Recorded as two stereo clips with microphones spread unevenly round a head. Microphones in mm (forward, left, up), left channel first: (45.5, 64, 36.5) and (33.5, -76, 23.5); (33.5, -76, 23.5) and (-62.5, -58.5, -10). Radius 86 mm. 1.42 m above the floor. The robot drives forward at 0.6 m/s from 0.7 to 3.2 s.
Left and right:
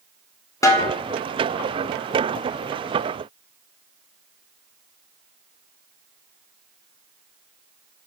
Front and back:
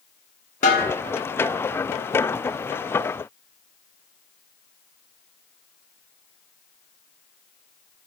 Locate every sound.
0.6 s a snare drum: 15° left, 0.6 m; by 0.9 s 20° left, 0.5 m